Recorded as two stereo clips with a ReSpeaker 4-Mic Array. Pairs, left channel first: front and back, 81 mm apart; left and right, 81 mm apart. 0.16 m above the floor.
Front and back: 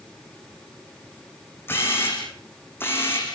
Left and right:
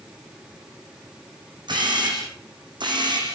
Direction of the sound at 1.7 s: 65° right.